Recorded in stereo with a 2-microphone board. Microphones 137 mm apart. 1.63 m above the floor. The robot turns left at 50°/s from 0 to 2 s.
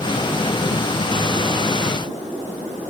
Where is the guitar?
I don't hear a guitar.